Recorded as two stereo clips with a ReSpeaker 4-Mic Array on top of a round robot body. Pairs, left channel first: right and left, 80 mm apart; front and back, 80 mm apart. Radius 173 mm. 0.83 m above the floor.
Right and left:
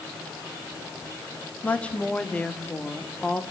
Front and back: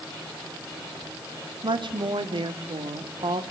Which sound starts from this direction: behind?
A woman speaking, at 1.6 s.